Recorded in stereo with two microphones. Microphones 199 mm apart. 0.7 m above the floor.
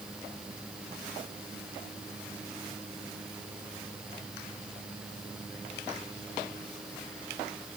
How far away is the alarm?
No alarm in this recording.